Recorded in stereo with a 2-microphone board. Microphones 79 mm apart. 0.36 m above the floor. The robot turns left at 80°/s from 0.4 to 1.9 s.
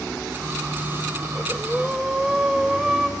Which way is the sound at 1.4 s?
30° left.